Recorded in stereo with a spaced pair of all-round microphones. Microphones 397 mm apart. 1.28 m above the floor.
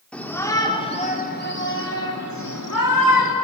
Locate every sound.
0.1 s a shout: 5° left (ahead or behind), 3.5 m; by 3.4 s 65° left (ahead or behind), 3 m